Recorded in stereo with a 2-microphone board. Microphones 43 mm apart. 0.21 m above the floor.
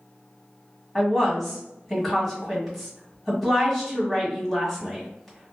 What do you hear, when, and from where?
0.9 s a woman speaking: centre (ahead or behind), 1.5 m